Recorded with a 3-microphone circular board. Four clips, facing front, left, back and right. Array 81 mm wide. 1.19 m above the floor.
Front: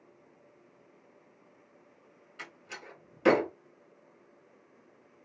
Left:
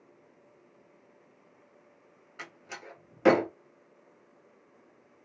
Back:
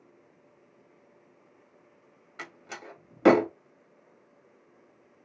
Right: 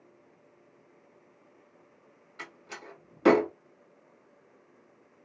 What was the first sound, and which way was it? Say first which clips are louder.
A door slam: even, back 4 dB; 170° left.